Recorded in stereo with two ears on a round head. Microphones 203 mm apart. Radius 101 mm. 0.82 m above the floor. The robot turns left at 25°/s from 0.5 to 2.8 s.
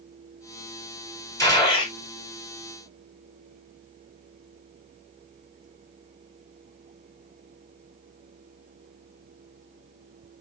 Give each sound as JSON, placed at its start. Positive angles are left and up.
{"t": 1.4, "sound": "a gunshot", "side_deg": 15, "distance_m": 1.3}